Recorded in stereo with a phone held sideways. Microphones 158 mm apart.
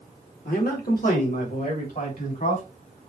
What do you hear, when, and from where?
0.5 s a man speaking: 70° left (ahead or behind), 1.9 m; by 3.1 s 60° left (ahead or behind), 3.5 m